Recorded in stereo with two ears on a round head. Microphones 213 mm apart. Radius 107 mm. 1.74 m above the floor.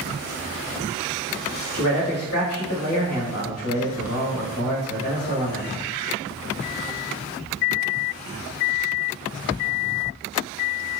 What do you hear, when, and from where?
1.7 s a man speaking: 65° left (ahead or behind), 1.3 m